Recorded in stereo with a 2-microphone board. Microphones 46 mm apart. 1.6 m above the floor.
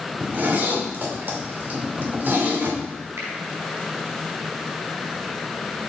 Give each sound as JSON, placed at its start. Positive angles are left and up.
{"t": 0.2, "sound": "a zipper", "side_deg": -45, "distance_m": 2.5}
{"t": 3.2, "sound": "a finger snap", "side_deg": -70, "distance_m": 4.0}